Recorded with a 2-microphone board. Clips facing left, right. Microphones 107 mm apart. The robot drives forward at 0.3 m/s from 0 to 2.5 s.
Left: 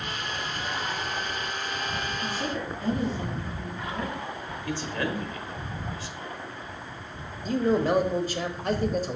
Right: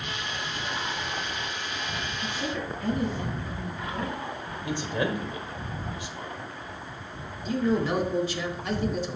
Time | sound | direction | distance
2.2 | a woman speaking | 35° left (ahead or behind) | 3 m
4.7 | a man speaking | 20° right (ahead or behind) | 1.0 m
7.5 | a man speaking | 50° left (ahead or behind) | 1.1 m